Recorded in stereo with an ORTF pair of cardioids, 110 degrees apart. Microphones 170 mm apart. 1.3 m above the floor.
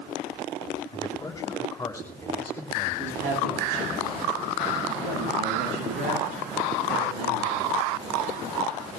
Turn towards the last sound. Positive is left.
turn(degrees=-70)